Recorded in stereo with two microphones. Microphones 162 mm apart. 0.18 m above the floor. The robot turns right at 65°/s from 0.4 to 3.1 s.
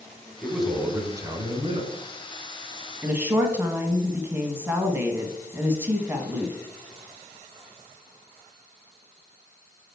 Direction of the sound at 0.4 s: 170° left.